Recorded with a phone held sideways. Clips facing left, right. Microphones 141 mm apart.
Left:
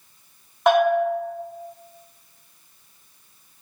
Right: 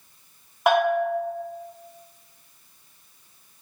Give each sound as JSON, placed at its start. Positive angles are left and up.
{"t": 0.7, "sound": "a bell", "side_deg": -5, "distance_m": 0.9}